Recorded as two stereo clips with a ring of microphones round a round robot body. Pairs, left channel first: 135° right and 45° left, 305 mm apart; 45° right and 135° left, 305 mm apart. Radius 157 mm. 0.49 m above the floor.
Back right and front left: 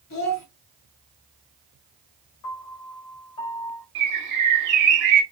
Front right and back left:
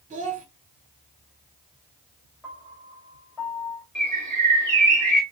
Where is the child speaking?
160° right, 1.2 m.